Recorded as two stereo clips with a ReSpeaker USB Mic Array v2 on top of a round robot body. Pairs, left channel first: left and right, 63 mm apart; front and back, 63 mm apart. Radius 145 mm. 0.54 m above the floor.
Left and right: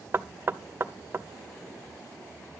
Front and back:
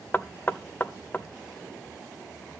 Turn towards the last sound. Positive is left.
turn(degrees=-55)